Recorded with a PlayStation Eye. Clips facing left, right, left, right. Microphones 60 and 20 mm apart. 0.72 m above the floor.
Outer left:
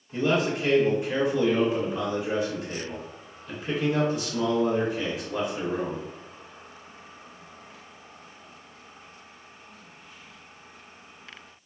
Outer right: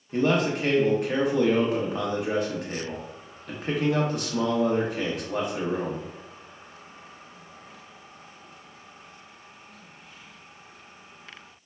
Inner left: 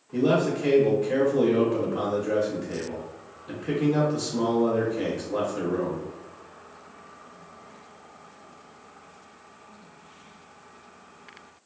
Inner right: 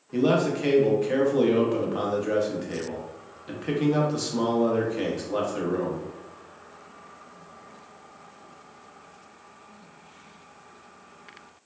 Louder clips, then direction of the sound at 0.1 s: Outer right 1 dB, even; 55° right (ahead or behind).